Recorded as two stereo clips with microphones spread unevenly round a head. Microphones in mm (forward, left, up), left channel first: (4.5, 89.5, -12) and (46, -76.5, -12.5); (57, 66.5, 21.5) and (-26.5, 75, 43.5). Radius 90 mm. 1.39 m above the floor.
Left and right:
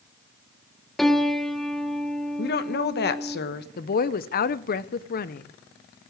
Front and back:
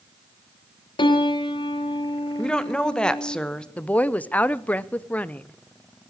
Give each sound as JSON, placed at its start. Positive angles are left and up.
{"t": 1.0, "sound": "a piano", "azimuth_deg": 15, "distance_m": 1.2}
{"t": 2.4, "sound": "a woman speaking", "azimuth_deg": 75, "distance_m": 1.1}
{"t": 3.8, "sound": "a woman speaking", "azimuth_deg": 65, "distance_m": 0.7}